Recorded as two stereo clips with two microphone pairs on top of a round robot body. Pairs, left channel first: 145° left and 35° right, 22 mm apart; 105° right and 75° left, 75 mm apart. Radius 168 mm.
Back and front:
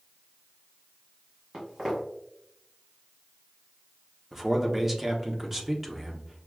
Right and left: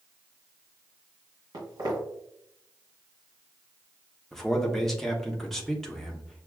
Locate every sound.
1.5 s footsteps: 40° left, 2 m
4.3 s a man speaking: straight ahead, 1.0 m